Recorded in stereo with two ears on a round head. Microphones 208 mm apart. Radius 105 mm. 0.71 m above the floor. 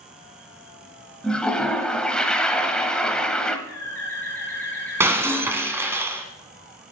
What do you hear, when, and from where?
1.2 s a toilet flushing: 5° left (ahead or behind), 1.0 m
3.7 s a bird: 10° left (ahead or behind), 6 m
5.0 s breaking glass: 10° right (ahead or behind), 1.1 m